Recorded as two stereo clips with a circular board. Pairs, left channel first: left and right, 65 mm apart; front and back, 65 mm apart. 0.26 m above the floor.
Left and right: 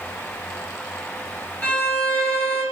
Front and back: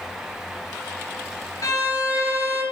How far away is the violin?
About 0.8 m.